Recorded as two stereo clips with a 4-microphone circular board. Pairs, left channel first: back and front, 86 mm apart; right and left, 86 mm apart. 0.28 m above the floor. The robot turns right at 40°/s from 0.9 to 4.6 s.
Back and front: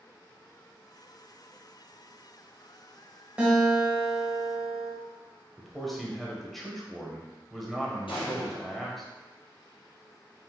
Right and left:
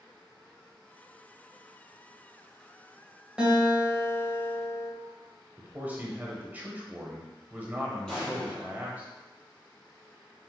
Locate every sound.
3.4 s a guitar: 40° left, 1.3 m; by 4.9 s 90° left, 1.3 m
5.6 s a man speaking: 95° left, 0.9 m
8.1 s an explosion: 170° right, 1.7 m